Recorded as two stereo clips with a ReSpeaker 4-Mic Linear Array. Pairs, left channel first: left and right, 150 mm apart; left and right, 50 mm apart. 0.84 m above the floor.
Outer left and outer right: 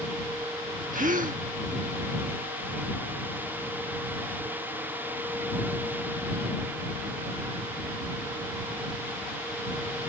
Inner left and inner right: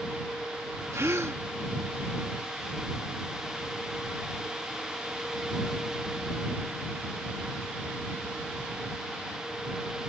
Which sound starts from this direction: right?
A gasp, at 0.9 s.